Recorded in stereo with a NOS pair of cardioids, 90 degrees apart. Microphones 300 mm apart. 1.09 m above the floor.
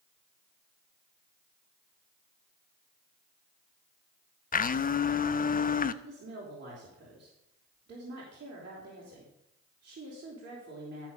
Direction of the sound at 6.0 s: 40° right.